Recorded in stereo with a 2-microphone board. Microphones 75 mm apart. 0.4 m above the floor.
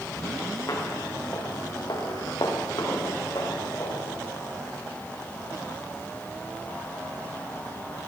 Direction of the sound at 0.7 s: 50° left (ahead or behind).